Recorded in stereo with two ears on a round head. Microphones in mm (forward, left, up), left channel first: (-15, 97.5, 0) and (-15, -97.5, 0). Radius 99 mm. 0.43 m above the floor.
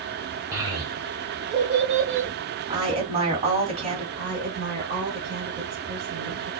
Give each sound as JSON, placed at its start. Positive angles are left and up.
{"t": 0.5, "sound": "a child speaking", "side_deg": -15, "distance_m": 1.0}
{"t": 2.7, "sound": "a woman speaking", "side_deg": -25, "distance_m": 2.5}
{"t": 4.2, "sound": "a woman speaking", "side_deg": -45, "distance_m": 1.4}